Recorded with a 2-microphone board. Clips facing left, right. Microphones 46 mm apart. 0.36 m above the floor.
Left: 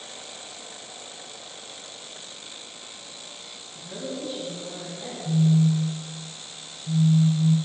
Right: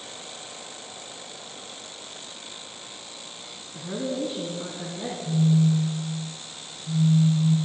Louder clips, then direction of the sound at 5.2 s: Left 1 dB; 35° left (ahead or behind).